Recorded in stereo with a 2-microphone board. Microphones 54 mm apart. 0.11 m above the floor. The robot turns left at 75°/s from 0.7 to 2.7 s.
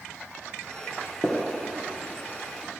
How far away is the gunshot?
About 1.8 m.